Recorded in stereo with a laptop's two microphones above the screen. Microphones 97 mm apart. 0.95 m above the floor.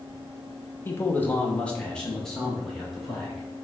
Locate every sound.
0.8 s a man speaking: 25° left (ahead or behind), 0.6 m; by 3.5 s centre (ahead or behind), 1.7 m